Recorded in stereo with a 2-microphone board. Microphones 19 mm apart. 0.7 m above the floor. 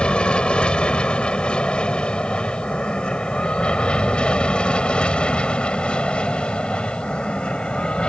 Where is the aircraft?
65° left (ahead or behind).